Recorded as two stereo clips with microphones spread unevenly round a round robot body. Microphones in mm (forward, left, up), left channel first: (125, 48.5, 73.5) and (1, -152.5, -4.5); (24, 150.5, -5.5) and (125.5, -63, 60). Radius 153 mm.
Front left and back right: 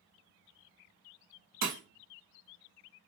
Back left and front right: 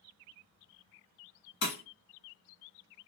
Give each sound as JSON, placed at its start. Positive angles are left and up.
{"t": 1.6, "sound": "breaking glass", "azimuth_deg": 175, "distance_m": 0.8}